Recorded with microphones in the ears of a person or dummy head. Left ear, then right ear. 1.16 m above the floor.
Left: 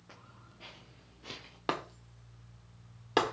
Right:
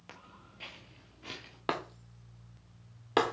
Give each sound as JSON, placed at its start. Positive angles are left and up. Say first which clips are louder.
{"t": 0.1, "sound": "footsteps", "louder": "right 4 dB", "side_deg": -35, "distance_m": 1.3}
{"t": 1.7, "sound": "breaking glass", "louder": "even", "side_deg": 0, "distance_m": 1.2}